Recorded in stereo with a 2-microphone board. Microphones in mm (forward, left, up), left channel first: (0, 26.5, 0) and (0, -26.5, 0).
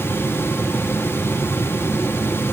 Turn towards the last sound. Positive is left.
No sound to turn to.